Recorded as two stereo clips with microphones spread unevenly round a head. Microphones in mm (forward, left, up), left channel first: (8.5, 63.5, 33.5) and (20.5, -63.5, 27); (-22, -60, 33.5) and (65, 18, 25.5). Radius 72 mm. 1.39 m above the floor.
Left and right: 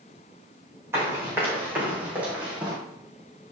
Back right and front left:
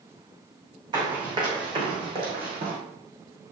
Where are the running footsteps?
10° right, 4.5 m; by 2.8 s straight ahead, 4 m.